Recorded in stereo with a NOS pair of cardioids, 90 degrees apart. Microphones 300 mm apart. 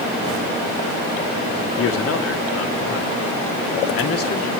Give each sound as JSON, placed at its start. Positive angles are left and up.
{"t": 1.8, "sound": "a man speaking", "azimuth_deg": 55, "distance_m": 2.0}